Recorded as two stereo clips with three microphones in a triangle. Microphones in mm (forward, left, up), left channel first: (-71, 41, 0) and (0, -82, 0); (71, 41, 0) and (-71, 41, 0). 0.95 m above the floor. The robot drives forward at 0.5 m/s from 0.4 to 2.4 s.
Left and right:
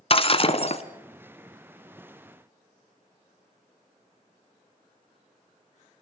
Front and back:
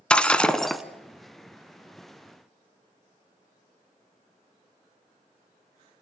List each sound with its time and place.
0.1 s breaking glass: 80° left, 1.5 m; by 0.8 s 90° left, 1.5 m